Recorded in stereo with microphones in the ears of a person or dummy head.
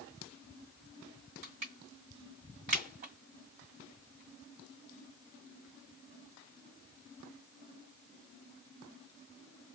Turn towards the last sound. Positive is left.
turn(degrees=-40)  # may be behind; listen again after turning